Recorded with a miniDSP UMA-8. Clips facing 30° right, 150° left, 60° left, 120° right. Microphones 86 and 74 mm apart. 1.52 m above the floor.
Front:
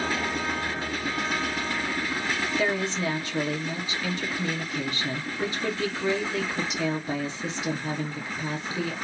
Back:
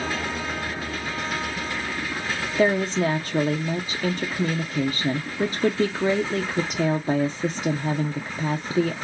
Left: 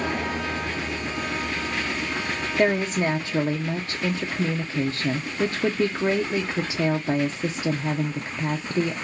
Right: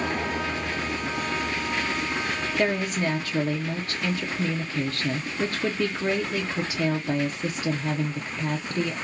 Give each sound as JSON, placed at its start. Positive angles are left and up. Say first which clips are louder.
{"t": 2.6, "sound": "a woman speaking", "louder": "back 9 dB, left 4 dB", "azimuth_deg": 120, "distance_m": 0.5}